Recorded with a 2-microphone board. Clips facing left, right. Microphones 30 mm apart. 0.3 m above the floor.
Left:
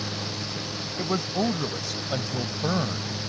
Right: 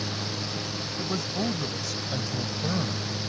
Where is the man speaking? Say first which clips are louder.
Left 4 dB; 35° left (ahead or behind).